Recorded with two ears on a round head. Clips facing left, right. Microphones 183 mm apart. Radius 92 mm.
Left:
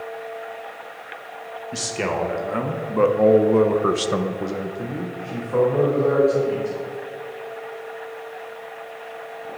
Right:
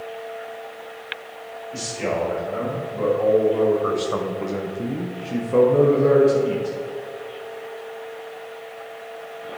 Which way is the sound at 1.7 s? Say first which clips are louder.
Even; 75° left (ahead or behind).